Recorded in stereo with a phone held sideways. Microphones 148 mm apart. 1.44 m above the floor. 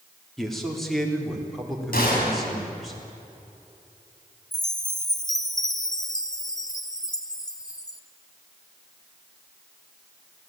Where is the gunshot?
75° left (ahead or behind), 7 m.